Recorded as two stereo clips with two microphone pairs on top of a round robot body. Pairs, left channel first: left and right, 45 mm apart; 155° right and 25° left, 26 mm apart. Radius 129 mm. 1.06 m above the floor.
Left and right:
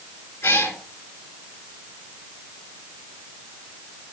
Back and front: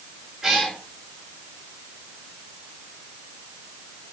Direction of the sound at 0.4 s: 105° left.